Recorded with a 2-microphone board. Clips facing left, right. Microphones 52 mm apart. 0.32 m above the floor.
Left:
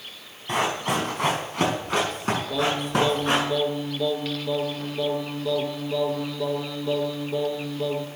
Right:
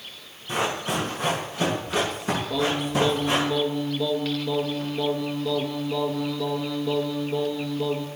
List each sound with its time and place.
0.5 s running footsteps: 60° left (ahead or behind), 5 m
2.5 s singing: centre (ahead or behind), 1.2 m